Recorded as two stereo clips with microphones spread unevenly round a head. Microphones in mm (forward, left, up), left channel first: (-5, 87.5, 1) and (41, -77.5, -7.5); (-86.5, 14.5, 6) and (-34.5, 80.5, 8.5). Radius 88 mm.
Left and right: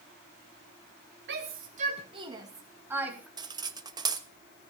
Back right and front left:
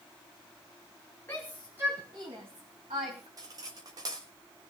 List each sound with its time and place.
1.3 s a shout: 50° right, 1.9 m; by 3.3 s 10° left, 3.5 m
3.4 s cutlery clinking: 10° right, 1.1 m